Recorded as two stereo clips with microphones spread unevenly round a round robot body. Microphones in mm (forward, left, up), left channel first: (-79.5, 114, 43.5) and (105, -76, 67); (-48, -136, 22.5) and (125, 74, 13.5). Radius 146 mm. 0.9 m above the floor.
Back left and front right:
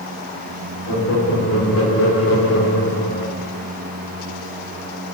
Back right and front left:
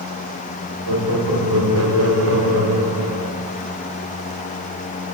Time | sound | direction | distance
0.9 | laughter | 100° left | 2 m